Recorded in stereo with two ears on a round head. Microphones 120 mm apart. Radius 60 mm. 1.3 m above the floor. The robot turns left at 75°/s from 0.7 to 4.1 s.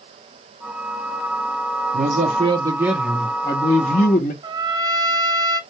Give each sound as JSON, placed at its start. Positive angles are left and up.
{"t": 1.9, "sound": "a man speaking", "azimuth_deg": -95, "distance_m": 0.8}
{"t": 4.4, "sound": "a trumpet", "side_deg": -30, "distance_m": 0.6}